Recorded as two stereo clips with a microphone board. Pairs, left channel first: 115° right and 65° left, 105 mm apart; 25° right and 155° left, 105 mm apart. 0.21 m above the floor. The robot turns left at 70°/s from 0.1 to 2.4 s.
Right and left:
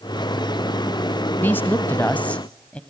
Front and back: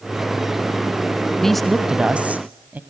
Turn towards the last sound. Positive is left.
turn(degrees=-165)